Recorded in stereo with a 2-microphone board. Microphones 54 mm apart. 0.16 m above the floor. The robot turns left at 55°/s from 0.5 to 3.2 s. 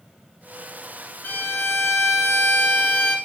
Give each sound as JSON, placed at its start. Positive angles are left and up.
{"t": 1.2, "sound": "a violin", "azimuth_deg": 135, "distance_m": 2.0}